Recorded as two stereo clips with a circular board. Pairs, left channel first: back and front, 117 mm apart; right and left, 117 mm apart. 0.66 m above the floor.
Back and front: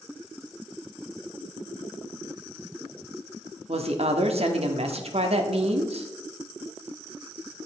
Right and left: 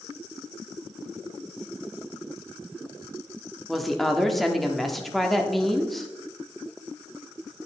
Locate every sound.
3.7 s a woman speaking: straight ahead, 1.1 m